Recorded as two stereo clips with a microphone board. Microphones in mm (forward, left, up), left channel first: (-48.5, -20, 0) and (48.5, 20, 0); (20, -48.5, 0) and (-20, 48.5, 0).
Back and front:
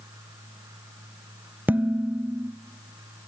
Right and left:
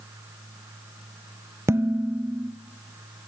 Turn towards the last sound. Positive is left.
turn(degrees=80)